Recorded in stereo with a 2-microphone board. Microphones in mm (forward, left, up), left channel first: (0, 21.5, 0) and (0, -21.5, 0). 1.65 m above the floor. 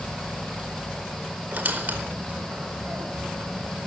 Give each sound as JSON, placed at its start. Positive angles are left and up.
{"t": 1.5, "sound": "a squeak", "side_deg": -45, "distance_m": 4.0}